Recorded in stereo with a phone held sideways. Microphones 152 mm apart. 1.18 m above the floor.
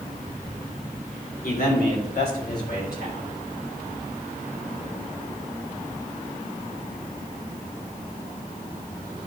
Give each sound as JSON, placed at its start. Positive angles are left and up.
{"t": 1.4, "sound": "a man speaking", "side_deg": 80, "distance_m": 3.5}